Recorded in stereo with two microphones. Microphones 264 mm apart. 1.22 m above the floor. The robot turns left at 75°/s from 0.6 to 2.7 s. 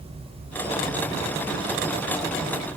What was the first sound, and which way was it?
Only background noise.